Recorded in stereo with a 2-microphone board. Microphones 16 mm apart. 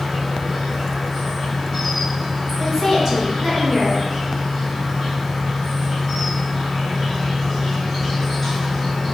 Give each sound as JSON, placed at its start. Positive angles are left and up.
{"t": 0.0, "sound": "an insect", "side_deg": -5, "distance_m": 1.6}
{"t": 2.6, "sound": "a woman speaking", "side_deg": -20, "distance_m": 1.7}